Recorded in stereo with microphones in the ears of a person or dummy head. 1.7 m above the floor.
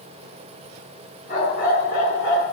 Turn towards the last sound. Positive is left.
turn(degrees=55)  # may be behind; listen again after turning